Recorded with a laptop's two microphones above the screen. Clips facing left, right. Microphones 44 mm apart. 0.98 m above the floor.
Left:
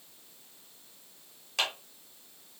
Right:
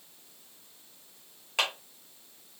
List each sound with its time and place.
1.6 s a clap: 25° right (ahead or behind), 1.7 m